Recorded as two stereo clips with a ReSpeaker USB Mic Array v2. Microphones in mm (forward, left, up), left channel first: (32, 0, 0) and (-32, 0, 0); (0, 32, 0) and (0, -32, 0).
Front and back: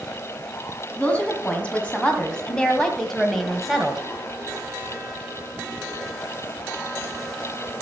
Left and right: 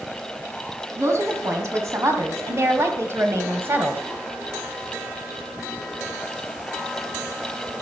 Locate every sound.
1.0 s a woman speaking: 65° right, 3 m; by 4.0 s 105° right, 1.6 m